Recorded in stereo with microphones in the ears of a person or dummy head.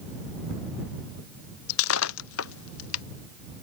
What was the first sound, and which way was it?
Breaking glass, 85° left.